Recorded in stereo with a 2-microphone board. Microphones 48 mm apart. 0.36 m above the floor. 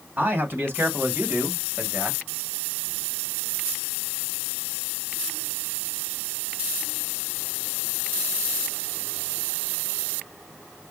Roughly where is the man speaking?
Right.